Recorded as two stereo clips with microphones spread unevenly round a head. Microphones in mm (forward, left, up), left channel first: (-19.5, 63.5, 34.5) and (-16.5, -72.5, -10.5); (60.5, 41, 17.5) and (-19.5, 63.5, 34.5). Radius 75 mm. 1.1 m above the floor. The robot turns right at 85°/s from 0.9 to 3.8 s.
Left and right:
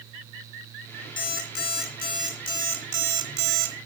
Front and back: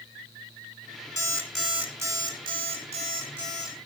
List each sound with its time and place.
1.2 s an alarm clock: 35° left, 2.5 m; by 3.8 s 105° right, 2.5 m